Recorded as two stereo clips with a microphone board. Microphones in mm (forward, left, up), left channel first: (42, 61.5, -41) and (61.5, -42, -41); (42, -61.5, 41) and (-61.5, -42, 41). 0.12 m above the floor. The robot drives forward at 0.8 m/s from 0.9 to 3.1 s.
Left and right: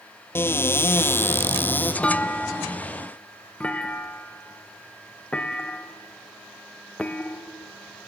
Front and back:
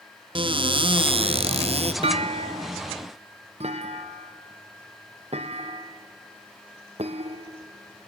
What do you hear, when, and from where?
0.3 s a cupboard door: 160° left, 0.8 m; by 1.9 s 170° left, 1.5 m
2.0 s a clunk: straight behind, 0.5 m